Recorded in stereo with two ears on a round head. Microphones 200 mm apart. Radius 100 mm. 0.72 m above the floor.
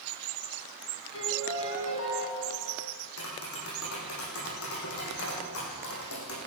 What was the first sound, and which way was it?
A piano, 70° left (ahead or behind).